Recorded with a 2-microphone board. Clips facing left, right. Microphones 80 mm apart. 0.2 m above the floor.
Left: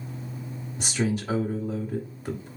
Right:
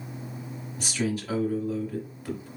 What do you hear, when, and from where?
0.8 s a man speaking: 25° left (ahead or behind), 1.0 m